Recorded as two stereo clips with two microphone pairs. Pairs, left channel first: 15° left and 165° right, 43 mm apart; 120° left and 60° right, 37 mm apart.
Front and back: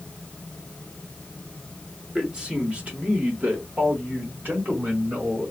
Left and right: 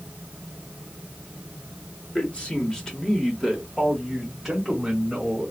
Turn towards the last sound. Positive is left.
turn(degrees=-130)